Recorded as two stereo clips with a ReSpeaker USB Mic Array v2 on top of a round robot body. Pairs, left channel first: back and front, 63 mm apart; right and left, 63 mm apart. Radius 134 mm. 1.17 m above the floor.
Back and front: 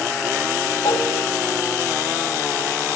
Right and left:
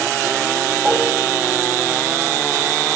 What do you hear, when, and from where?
0.8 s dishes clattering: 175° right, 5 m